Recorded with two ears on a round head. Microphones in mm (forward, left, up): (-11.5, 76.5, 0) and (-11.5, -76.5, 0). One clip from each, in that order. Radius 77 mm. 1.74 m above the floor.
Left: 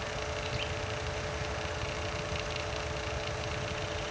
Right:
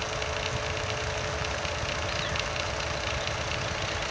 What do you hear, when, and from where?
Only background noise.